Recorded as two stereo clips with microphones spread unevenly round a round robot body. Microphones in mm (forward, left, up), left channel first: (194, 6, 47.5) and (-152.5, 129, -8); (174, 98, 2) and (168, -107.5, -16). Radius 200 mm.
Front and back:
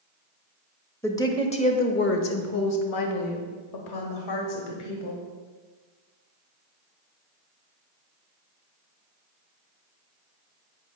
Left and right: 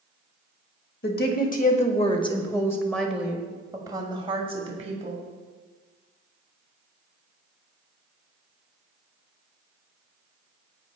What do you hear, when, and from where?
1.0 s a woman speaking: 70° left, 1.5 m; by 5.2 s 40° right, 2 m